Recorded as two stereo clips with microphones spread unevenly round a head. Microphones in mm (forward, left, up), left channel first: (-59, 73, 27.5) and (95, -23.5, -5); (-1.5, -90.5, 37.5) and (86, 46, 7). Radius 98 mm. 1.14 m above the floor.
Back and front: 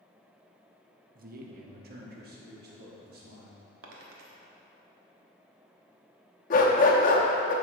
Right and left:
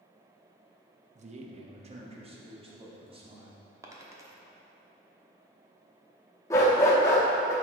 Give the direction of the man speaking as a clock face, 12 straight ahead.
12 o'clock.